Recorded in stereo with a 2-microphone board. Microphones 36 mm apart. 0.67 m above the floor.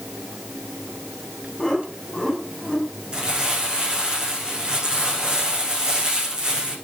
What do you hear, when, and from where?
1.6 s laughter: 5° left (ahead or behind), 6.5 m; by 2.9 s 5° right (ahead or behind), 6 m
3.1 s crumpling: 30° right (ahead or behind), 8.5 m